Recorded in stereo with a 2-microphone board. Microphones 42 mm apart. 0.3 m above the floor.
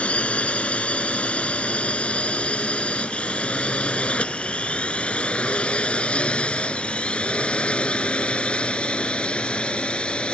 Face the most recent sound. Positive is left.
turn(degrees=25)  # may be behind; listen again after turning